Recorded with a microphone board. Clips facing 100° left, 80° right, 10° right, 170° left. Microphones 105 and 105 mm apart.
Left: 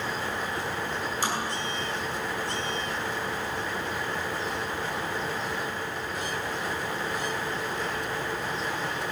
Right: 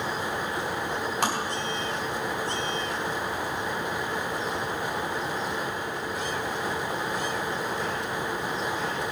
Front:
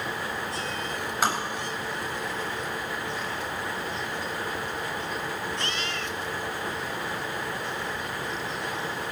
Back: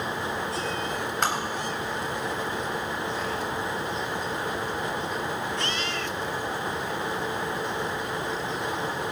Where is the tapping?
95° right, 3.5 m.